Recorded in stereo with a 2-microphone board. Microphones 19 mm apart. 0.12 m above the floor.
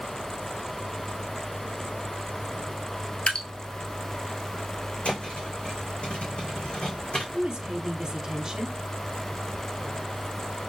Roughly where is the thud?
Left.